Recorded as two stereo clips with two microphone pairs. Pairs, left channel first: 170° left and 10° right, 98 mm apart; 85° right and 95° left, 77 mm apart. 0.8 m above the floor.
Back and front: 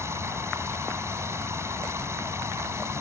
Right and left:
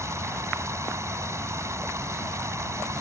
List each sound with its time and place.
0.0 s running water: 50° left